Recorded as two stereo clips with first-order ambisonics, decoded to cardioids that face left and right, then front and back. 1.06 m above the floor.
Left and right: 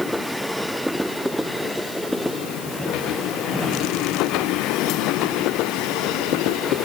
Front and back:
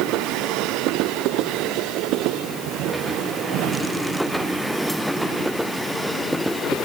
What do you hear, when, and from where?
Only background noise.